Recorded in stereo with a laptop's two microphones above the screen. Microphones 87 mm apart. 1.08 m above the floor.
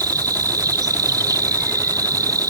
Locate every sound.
0.0 s an insect: 45° right (ahead or behind)